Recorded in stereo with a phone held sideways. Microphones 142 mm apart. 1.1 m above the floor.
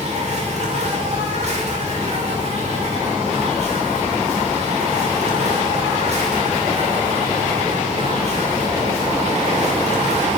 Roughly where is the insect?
Right.